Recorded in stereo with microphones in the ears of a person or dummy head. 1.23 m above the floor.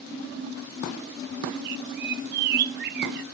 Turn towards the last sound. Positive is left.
turn(degrees=-50)  # may be behind; listen again after turning